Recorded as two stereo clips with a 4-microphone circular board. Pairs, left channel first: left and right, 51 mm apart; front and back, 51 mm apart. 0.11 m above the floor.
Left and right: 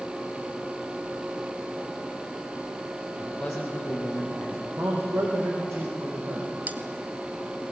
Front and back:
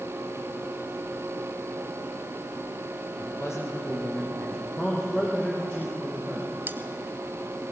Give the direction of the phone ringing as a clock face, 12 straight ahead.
No phone ringing in this recording.